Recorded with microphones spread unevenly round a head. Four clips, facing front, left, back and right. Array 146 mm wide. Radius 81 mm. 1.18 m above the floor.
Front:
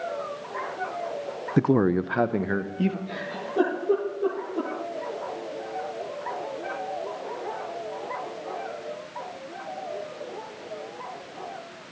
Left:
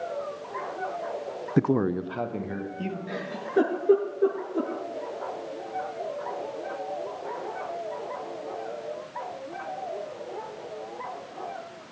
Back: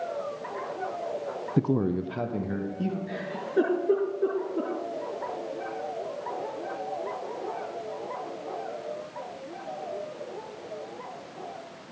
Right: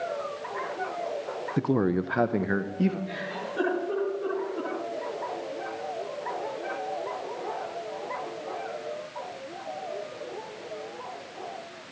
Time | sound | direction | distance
1.6 | a man speaking | 20° left | 0.5 m
3.1 | a giggle | 90° left | 7 m